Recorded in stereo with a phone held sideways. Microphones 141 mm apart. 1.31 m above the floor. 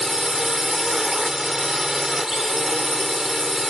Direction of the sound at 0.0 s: 5° right (ahead or behind).